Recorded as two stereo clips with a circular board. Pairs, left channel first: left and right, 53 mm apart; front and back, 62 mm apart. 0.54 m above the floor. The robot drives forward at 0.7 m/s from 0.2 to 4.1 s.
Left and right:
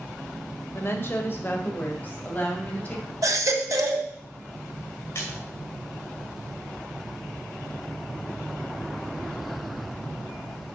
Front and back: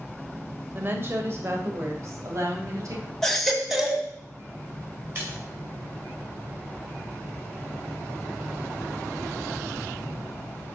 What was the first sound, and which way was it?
A woman speaking, 125° left.